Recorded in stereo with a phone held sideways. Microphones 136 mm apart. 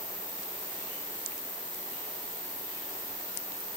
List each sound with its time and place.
0.0 s an insect: 40° left (ahead or behind), 2.0 m